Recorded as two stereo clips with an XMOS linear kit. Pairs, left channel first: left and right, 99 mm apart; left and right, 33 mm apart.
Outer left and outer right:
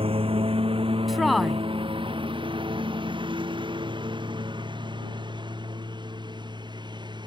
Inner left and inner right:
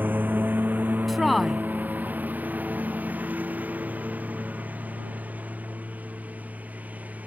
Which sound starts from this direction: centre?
A woman speaking, at 1.1 s.